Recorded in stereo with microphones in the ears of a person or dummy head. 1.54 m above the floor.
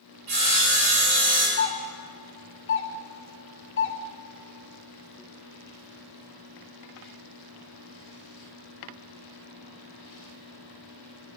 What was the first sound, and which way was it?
Sawing, 60° right (ahead or behind).